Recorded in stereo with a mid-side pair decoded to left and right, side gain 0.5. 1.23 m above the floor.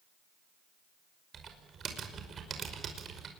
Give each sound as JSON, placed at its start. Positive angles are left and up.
{"t": 1.3, "sound": "typing on a keyboard", "azimuth_deg": -50, "distance_m": 5.5}